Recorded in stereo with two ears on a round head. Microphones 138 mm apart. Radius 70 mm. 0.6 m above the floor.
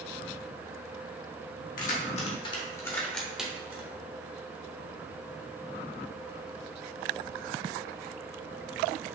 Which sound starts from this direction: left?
Keys jangling, at 1.8 s.